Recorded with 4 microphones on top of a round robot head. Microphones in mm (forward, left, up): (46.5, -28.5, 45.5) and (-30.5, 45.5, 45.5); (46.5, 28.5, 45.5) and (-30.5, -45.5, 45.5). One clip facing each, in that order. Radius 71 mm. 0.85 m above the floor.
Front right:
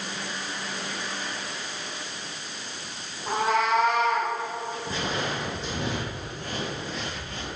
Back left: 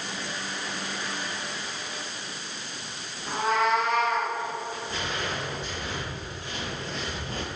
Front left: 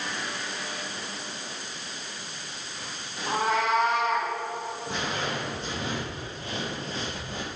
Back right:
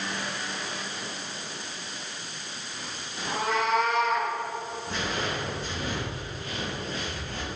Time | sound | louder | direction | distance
3.3 | a cat meowing | front right 1 dB, front left 1 dB | 10° right | 2 m
4.9 | footsteps | front right 4 dB, even | 25° right | 2.5 m